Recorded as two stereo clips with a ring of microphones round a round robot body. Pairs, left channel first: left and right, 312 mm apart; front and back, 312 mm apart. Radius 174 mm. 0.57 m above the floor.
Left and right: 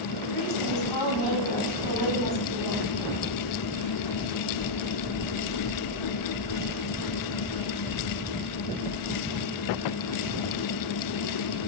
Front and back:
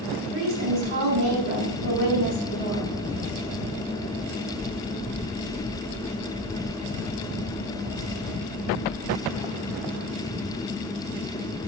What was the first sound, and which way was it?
A woman speaking, 135° left.